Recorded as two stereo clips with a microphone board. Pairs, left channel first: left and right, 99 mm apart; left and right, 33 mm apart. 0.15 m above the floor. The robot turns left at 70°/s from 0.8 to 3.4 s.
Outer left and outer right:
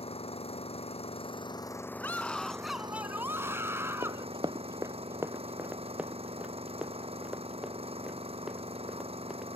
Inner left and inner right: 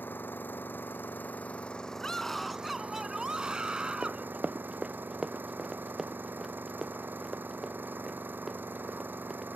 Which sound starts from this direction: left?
An engine running, at 0.0 s.